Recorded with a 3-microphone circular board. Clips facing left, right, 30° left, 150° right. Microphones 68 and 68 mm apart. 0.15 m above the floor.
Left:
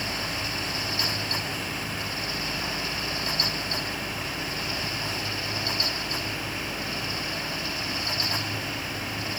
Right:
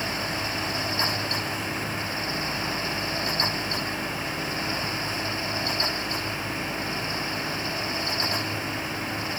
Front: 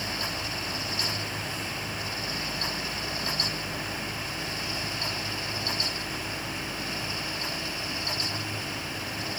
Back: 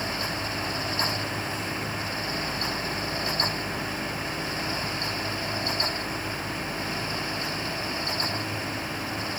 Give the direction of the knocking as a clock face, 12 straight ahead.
I don't hear knocking.